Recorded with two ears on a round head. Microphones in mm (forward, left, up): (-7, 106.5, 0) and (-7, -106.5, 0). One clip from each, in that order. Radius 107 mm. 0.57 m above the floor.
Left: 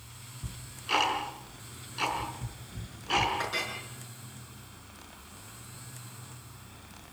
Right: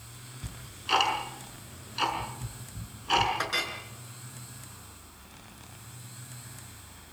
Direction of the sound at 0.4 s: 20° right (ahead or behind).